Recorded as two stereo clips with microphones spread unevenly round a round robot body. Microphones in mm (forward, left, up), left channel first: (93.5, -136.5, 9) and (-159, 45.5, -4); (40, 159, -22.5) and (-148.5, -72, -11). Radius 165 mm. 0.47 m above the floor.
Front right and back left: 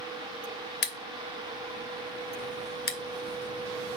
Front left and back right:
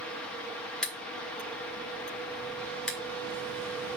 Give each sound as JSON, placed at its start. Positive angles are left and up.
{"t": 0.8, "sound": "scissors", "azimuth_deg": -30, "distance_m": 1.2}